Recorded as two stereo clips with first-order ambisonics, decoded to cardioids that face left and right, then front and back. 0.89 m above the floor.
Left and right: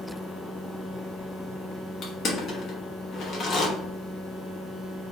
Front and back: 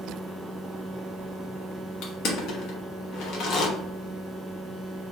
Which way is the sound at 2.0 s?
30° left.